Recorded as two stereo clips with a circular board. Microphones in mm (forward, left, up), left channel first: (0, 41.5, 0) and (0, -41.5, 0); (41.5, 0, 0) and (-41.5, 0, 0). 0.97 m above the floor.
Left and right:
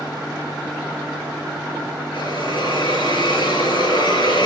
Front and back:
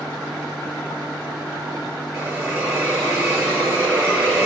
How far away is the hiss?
About 7.5 m.